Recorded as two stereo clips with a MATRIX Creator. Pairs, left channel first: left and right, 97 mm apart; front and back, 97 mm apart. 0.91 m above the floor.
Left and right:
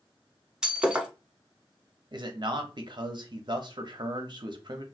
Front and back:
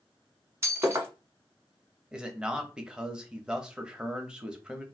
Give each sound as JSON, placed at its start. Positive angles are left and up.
{"t": 0.6, "sound": "breaking glass", "azimuth_deg": -165, "distance_m": 0.9}
{"t": 2.1, "sound": "a man speaking", "azimuth_deg": -100, "distance_m": 0.7}